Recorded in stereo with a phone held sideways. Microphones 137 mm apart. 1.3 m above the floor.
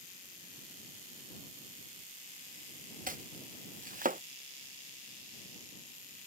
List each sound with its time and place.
3.1 s chopping: 80° right